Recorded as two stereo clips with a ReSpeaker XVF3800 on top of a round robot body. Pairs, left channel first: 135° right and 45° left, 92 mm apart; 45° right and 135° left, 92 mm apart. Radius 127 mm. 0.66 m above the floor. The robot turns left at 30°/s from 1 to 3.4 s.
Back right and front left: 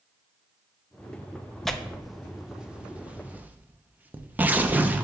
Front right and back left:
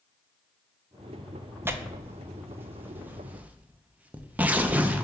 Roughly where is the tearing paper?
Behind left.